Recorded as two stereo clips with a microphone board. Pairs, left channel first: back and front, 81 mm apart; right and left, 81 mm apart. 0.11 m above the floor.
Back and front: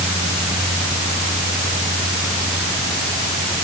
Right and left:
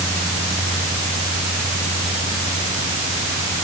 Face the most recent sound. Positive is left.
No sound to turn to.